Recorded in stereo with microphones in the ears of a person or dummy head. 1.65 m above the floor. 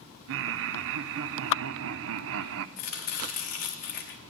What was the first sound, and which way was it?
Laughter, 80° right.